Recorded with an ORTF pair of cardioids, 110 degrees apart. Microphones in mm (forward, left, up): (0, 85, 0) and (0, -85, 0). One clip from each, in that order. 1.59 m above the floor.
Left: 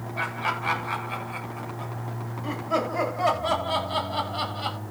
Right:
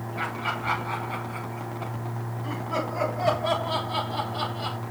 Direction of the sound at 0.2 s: 45° left.